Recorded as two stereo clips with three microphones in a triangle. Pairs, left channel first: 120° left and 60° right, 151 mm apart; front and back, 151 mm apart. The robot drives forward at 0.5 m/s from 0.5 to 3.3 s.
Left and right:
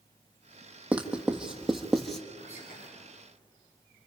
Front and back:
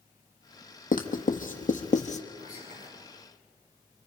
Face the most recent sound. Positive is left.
turn(degrees=145)